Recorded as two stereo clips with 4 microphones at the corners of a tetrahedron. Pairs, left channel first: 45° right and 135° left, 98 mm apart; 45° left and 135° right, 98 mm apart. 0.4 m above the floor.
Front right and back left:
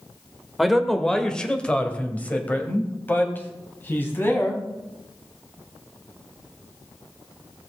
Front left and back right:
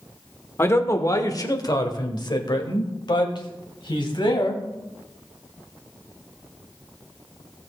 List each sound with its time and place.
0.6 s a man speaking: 50° left, 1.1 m; by 4.6 s 20° left, 3 m